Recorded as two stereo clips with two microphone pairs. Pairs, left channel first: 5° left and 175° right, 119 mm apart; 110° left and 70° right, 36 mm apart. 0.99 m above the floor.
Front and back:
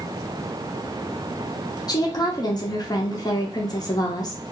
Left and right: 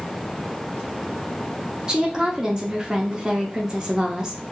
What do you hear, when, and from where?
1.9 s a woman speaking: 15° right, 0.7 m